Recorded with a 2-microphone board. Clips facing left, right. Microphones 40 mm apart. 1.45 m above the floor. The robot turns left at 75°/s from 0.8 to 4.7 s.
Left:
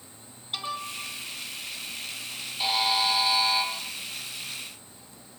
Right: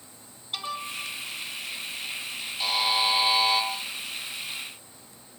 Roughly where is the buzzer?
Ahead.